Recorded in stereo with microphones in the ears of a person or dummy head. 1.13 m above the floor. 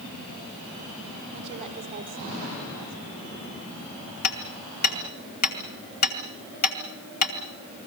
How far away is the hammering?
About 2.5 m.